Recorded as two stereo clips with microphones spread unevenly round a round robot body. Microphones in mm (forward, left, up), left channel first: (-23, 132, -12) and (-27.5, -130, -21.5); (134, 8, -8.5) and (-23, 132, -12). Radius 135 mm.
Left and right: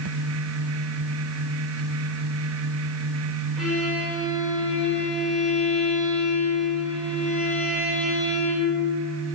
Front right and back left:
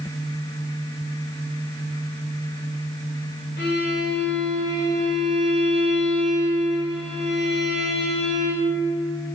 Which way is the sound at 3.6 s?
5° right.